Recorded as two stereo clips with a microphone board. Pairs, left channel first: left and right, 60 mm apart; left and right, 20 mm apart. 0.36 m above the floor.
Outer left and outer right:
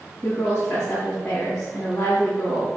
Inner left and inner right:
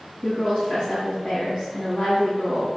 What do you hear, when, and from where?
0.2 s a woman speaking: 45° left (ahead or behind), 3.5 m